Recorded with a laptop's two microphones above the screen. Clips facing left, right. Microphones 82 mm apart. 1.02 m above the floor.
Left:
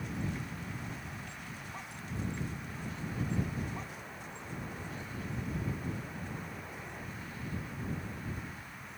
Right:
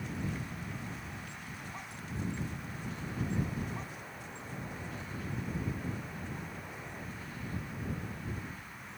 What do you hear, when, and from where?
Only background noise.